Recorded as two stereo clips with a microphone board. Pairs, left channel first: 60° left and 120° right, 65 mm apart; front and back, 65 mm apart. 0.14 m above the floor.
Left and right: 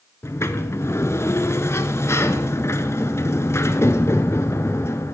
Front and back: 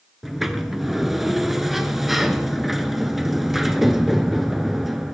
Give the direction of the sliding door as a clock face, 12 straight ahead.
9 o'clock.